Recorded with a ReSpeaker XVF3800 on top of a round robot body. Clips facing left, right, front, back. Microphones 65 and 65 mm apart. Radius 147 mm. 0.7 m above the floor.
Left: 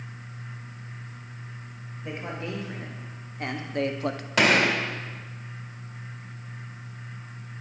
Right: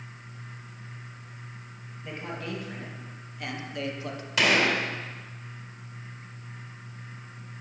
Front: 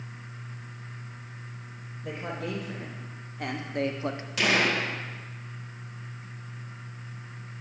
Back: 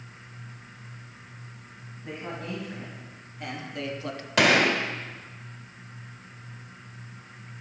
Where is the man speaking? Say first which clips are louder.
Left 2 dB, front 2 dB; 20° left, 3 m; by 4.3 s 70° left, 1.1 m.